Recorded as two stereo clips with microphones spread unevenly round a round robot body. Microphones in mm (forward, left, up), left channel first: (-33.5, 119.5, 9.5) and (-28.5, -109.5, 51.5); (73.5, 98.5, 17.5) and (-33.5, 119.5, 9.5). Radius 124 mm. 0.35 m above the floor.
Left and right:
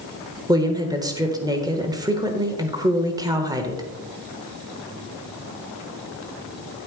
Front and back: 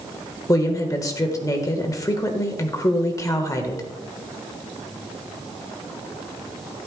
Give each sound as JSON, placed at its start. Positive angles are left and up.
{"t": 0.5, "sound": "a woman speaking", "azimuth_deg": -10, "distance_m": 1.2}